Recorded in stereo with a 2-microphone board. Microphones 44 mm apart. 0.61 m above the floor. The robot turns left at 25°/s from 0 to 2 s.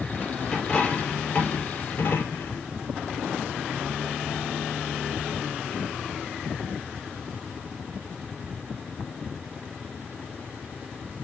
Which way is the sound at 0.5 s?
165° left.